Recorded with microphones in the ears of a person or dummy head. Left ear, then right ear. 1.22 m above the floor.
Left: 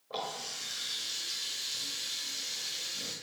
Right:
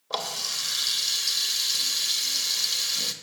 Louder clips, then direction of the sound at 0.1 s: Right 8 dB; 55° right (ahead or behind).